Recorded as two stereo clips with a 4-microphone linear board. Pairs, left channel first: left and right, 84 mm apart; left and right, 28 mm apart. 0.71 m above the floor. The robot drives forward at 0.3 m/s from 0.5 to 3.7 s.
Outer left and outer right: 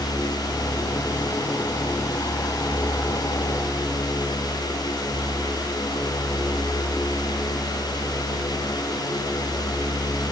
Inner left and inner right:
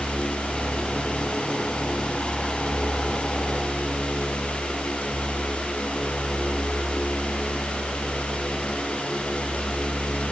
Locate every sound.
Only background noise.